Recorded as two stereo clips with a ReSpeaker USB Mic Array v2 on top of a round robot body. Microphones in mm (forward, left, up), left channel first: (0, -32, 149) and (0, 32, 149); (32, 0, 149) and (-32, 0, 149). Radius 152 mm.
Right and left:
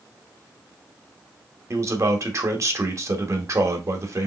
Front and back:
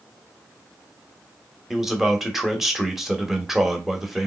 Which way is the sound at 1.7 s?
95° left.